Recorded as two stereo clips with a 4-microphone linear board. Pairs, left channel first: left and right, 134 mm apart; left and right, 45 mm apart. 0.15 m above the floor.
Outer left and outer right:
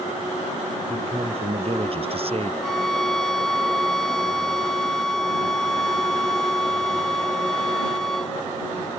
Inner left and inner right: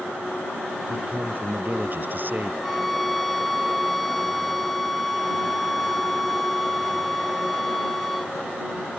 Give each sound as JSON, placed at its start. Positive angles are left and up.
{"t": 0.9, "sound": "a man speaking", "side_deg": -45}
{"t": 2.6, "sound": "a violin", "side_deg": 0}